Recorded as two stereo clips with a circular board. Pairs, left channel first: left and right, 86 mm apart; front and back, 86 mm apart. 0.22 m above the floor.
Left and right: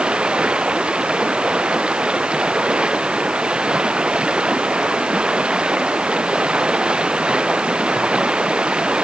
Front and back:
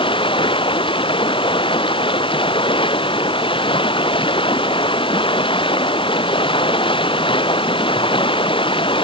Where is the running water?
10° right.